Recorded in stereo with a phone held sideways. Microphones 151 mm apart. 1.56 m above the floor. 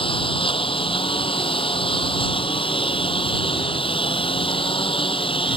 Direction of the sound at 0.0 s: 35° left (ahead or behind).